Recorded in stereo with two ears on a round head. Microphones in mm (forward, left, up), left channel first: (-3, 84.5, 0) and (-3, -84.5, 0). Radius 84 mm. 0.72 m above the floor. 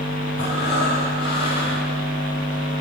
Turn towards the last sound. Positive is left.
turn(degrees=70)  # may be behind; listen again after turning